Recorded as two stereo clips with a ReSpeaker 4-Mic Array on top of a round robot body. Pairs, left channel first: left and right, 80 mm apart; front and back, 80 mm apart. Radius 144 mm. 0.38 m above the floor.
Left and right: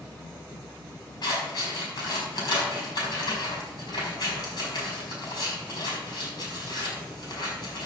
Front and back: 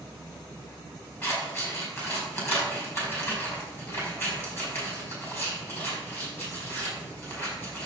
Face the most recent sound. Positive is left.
turn(degrees=55)